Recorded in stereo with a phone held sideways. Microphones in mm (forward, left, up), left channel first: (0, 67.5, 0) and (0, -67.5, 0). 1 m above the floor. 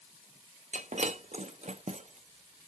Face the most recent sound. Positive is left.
turn(degrees=-55)  # may be behind; listen again after turning